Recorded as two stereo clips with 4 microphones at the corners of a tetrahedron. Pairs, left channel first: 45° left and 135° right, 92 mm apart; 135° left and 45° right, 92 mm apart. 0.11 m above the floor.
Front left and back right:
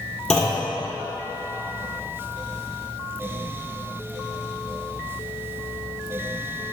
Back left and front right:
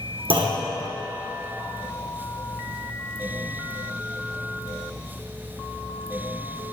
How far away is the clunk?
About 1.7 m.